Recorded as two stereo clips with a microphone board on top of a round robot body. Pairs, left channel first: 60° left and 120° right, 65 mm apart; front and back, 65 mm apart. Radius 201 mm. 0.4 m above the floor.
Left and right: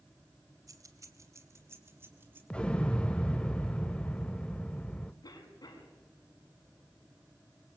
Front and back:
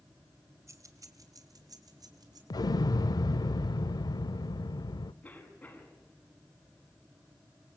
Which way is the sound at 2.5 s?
15° right.